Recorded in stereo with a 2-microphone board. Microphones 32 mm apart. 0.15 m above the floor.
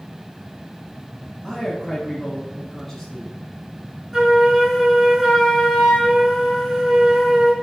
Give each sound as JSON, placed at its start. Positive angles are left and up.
{"t": 1.4, "sound": "a man speaking", "side_deg": 0, "distance_m": 1.2}
{"t": 4.1, "sound": "a flute", "side_deg": -20, "distance_m": 1.7}